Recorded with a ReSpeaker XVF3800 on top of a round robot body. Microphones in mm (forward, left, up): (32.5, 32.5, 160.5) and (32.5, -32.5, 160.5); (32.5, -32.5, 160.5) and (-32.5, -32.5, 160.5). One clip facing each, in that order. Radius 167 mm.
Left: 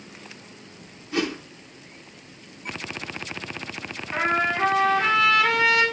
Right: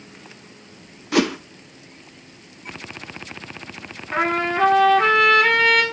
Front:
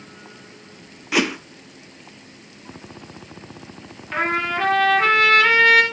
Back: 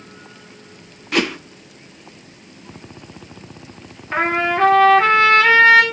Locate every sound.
1.1 s a whoosh: 85° right, 0.9 m
4.1 s a trumpet: 115° right, 3 m